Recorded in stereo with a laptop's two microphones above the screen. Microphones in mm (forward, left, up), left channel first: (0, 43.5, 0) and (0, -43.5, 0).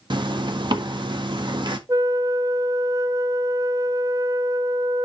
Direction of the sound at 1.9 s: 40° right (ahead or behind).